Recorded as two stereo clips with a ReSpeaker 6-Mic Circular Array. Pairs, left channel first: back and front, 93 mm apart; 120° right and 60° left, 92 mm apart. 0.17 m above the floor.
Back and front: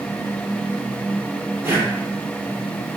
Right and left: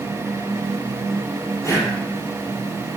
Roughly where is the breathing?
Ahead right.